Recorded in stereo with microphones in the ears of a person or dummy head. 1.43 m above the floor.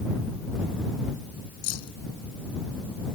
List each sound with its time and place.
1.6 s keys jangling: 85° left